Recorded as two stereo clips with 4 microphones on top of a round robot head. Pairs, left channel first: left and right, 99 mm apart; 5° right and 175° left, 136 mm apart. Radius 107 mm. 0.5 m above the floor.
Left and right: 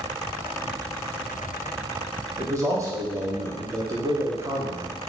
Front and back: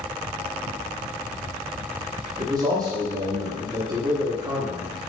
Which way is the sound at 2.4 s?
135° right.